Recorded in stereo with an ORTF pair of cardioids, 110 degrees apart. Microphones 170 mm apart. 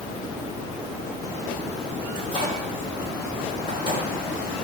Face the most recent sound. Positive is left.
turn(degrees=30)